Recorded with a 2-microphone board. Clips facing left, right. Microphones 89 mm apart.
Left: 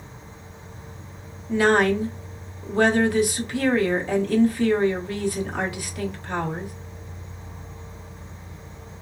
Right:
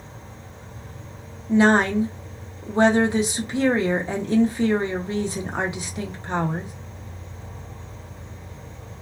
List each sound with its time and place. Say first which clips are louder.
0.0 s an insect: right 1 dB; 65° right (ahead or behind), 1.2 m
1.5 s a woman speaking: right 1 dB; 25° right (ahead or behind), 0.7 m